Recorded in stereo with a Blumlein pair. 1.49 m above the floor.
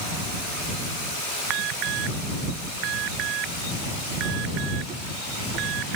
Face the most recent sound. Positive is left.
turn(degrees=-35)